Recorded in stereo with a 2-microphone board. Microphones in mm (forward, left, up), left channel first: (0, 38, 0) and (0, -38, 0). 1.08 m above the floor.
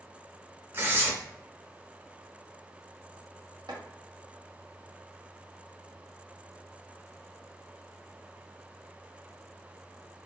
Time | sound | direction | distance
0.7 | tearing paper | 30° right (ahead or behind) | 0.9 m
3.7 | chopping | 85° right | 1.0 m